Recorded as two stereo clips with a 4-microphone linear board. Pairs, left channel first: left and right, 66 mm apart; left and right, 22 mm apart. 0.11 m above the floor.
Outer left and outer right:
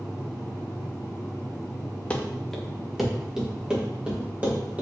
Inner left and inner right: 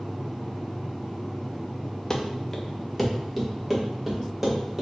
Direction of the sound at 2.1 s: 20° left (ahead or behind).